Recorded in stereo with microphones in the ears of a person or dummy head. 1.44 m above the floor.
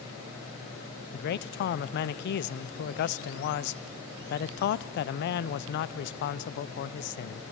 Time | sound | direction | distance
1.1 | a man speaking | 60° left (ahead or behind) | 0.5 m